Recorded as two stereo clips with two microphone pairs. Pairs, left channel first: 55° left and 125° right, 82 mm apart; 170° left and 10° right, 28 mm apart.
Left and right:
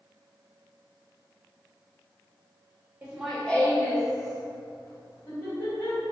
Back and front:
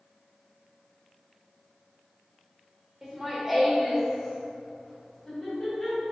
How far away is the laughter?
About 0.7 m.